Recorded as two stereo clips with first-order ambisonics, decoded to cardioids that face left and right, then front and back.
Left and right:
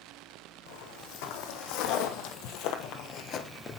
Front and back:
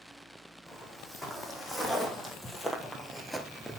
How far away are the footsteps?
About 3 m.